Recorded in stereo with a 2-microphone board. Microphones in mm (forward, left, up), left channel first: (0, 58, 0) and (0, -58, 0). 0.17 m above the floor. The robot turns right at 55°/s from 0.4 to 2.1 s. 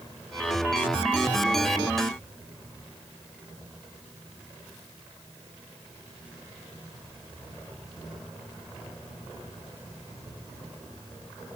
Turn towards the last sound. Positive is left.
No sound to turn to.